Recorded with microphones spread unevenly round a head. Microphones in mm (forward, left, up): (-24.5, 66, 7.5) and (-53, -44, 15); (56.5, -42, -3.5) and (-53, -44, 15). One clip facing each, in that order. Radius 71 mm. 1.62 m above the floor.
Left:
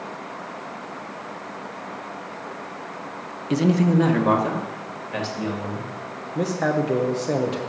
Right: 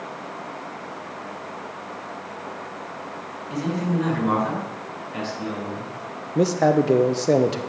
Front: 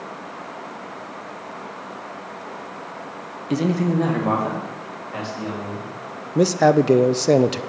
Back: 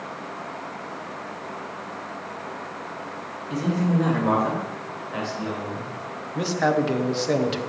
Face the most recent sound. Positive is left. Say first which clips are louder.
# right 5 dB, front 7 dB
turn(degrees=-45)